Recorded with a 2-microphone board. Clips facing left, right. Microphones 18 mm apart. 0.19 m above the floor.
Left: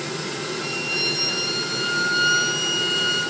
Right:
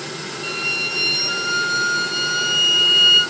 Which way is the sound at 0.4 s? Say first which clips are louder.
Right 7 dB; 45° right (ahead or behind).